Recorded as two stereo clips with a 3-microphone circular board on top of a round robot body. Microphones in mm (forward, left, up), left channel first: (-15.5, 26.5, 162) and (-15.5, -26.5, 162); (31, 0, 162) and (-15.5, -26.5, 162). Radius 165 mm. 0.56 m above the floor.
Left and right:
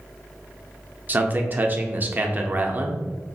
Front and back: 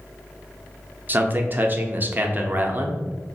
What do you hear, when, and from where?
1.1 s a man speaking: 120° right, 0.7 m